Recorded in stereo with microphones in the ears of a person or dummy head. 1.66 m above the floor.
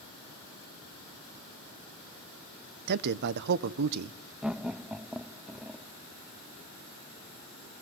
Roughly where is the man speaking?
Right.